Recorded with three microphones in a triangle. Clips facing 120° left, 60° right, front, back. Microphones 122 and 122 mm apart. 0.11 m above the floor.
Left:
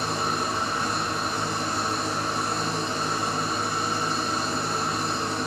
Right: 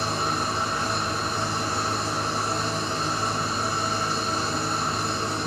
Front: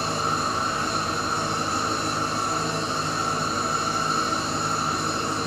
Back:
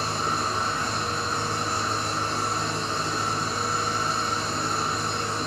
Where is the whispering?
I don't hear whispering.